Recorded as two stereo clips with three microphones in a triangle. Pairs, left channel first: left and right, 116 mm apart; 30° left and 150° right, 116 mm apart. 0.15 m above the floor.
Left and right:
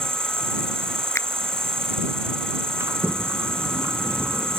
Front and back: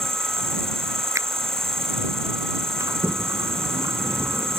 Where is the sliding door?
125° right.